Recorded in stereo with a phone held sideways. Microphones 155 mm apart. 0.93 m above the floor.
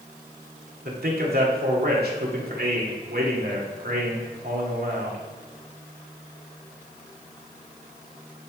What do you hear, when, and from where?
0.8 s a man speaking: 80° right, 2 m